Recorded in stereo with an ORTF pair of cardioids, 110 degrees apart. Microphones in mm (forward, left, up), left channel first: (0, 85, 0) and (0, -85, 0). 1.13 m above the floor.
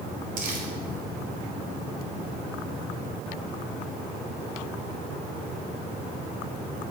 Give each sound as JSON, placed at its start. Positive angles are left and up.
{"t": 0.4, "sound": "crumpling", "azimuth_deg": -55, "distance_m": 2.0}